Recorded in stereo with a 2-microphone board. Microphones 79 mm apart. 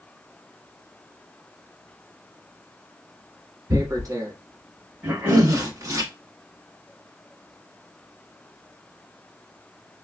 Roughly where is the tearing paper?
Right.